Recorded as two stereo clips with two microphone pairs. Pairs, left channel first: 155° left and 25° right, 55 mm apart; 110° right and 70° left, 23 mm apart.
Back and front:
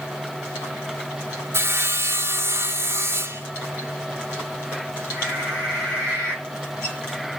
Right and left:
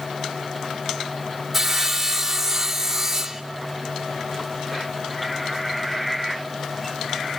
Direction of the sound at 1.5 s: Straight ahead.